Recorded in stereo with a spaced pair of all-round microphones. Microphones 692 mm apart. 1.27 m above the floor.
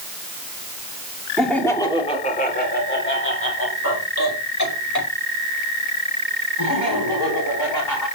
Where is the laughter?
Centre (ahead or behind), 2.5 m; by 8.1 s 30° left (ahead or behind), 8 m.